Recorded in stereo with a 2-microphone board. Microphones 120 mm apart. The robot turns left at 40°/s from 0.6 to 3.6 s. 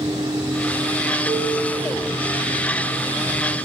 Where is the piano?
15° right (ahead or behind), 9.5 m; by 1.8 s 10° left (ahead or behind), 9.5 m.